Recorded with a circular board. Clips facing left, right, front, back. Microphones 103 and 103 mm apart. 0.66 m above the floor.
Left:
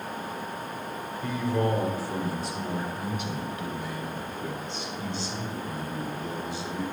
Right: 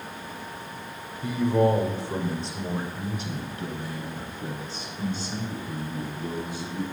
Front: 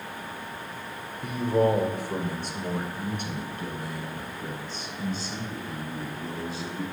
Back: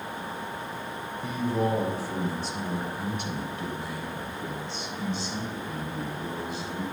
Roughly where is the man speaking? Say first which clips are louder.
Right 5 dB, front 4 dB; ahead.